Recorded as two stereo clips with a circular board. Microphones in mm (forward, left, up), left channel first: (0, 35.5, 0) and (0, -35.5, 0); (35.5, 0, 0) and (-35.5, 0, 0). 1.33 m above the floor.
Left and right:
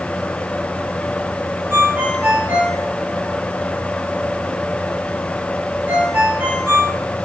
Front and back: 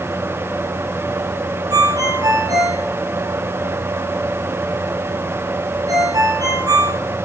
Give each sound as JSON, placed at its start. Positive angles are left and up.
{"t": 1.7, "sound": "a ringtone", "azimuth_deg": -155, "distance_m": 4.5}